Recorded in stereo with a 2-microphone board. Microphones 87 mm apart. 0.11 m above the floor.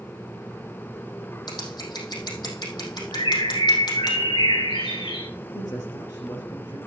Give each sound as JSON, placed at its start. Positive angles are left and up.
{"t": 1.5, "sound": "scissors", "side_deg": 55, "distance_m": 4.0}
{"t": 3.1, "sound": "a bird", "side_deg": 85, "distance_m": 7.5}
{"t": 5.5, "sound": "a man speaking", "side_deg": 50, "distance_m": 2.5}